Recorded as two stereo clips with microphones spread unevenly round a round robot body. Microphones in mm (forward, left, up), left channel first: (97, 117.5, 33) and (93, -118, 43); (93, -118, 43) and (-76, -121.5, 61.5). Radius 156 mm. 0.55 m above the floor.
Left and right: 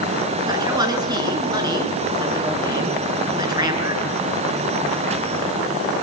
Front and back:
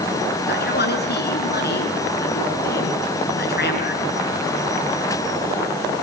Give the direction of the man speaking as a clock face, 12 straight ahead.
1 o'clock.